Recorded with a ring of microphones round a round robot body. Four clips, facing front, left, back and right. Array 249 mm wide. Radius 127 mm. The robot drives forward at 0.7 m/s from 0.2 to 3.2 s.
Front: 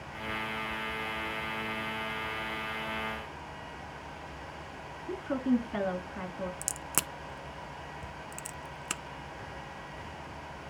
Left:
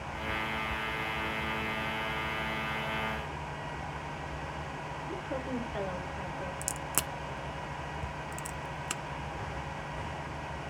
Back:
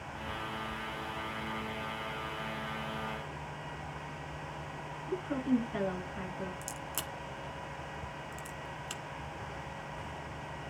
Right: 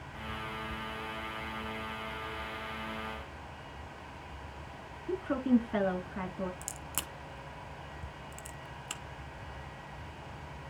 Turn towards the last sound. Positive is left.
turn(degrees=25)